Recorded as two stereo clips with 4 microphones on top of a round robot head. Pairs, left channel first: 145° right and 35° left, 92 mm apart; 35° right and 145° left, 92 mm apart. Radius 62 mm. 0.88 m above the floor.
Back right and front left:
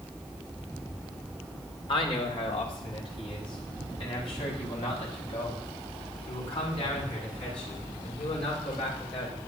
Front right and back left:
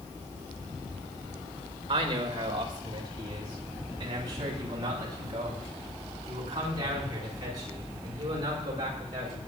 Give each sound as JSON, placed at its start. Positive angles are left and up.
{"t": 1.9, "sound": "a man speaking", "azimuth_deg": -175, "distance_m": 4.0}